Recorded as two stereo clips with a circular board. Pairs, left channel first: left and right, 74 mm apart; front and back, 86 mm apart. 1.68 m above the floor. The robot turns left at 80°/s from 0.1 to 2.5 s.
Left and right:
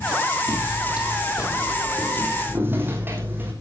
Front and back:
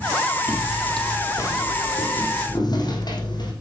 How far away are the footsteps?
About 3.5 m.